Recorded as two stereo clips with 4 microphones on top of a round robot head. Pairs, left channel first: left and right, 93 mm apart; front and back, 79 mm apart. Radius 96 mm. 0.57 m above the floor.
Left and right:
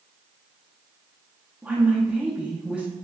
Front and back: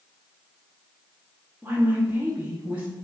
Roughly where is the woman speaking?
Behind right.